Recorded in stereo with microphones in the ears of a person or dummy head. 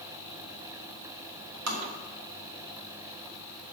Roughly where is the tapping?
Right.